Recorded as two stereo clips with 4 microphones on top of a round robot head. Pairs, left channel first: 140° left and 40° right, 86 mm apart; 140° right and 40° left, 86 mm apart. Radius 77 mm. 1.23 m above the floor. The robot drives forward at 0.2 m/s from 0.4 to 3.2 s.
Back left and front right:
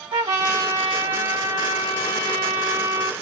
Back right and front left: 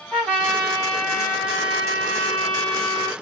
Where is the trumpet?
50° right, 2.5 m; by 3.1 s 60° right, 2 m.